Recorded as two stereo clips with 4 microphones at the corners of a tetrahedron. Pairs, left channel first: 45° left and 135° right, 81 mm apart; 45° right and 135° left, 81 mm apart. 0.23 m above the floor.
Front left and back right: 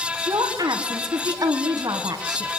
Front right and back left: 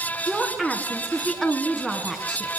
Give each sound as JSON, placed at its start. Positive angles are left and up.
{"t": 0.3, "sound": "a woman speaking", "azimuth_deg": -140, "distance_m": 2.5}